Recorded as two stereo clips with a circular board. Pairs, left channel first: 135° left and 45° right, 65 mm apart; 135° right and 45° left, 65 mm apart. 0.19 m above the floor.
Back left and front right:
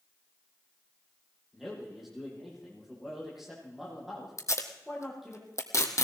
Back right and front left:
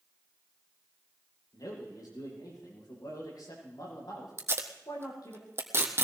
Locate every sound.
1.5 s a man speaking: 130° right, 7.5 m
4.4 s tape being pulled: 95° left, 1.9 m